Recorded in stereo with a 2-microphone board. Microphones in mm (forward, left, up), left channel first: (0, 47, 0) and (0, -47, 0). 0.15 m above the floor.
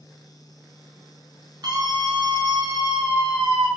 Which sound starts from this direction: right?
A scream, at 1.6 s.